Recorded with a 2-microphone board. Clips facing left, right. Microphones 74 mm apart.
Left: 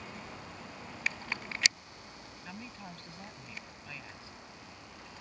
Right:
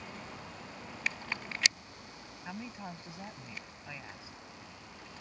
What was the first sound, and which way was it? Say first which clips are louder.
A woman speaking: right 4 dB; 20° right (ahead or behind).